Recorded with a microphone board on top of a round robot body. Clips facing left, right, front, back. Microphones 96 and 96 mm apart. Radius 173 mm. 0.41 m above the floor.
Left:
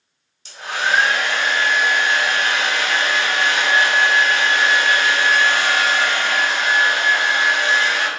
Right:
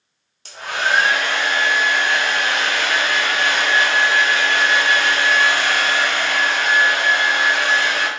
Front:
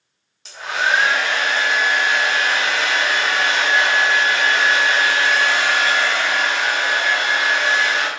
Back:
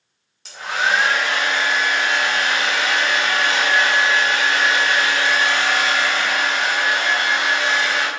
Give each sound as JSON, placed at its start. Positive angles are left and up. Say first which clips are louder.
{"t": 0.5, "sound": "a hair dryer", "louder": "even, even", "azimuth_deg": -90, "distance_m": 0.9}